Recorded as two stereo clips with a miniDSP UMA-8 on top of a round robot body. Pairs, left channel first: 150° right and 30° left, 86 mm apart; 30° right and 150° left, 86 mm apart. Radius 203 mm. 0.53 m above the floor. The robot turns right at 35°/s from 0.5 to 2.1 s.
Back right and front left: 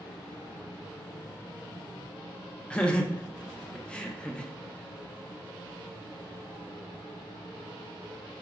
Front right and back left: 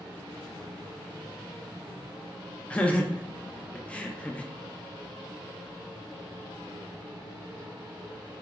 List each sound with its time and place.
2.7 s laughter: 90° right, 0.6 m